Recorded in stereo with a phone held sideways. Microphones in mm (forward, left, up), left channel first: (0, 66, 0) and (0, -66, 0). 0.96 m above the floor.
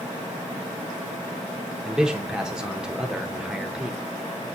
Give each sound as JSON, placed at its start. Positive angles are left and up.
{"t": 1.9, "sound": "a man speaking", "side_deg": -5, "distance_m": 0.6}